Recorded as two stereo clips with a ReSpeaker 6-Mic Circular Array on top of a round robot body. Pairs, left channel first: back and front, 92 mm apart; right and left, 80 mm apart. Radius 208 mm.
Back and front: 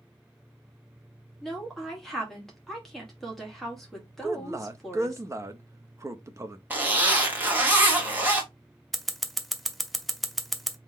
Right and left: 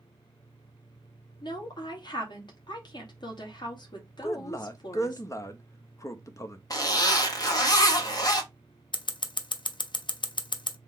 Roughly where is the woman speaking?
Right.